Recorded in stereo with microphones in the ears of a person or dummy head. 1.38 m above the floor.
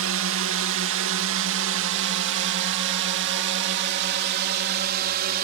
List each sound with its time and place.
0.0 s a drone: 60° right (ahead or behind); by 5.4 s 50° right (ahead or behind)